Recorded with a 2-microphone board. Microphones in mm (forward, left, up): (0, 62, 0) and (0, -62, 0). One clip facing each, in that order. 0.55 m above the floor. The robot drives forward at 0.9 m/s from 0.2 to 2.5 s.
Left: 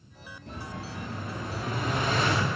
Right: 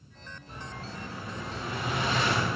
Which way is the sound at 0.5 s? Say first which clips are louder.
Left 3 dB; 70° left (ahead or behind).